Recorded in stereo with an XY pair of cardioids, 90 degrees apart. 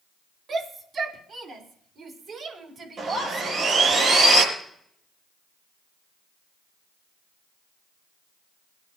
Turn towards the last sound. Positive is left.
turn(degrees=-55)